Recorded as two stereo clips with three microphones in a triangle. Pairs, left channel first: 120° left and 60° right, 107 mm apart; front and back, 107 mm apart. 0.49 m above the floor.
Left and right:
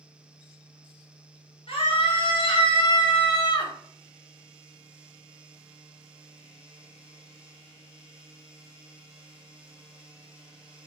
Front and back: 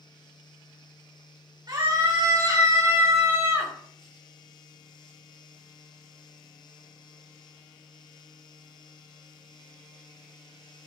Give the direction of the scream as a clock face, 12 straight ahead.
8 o'clock.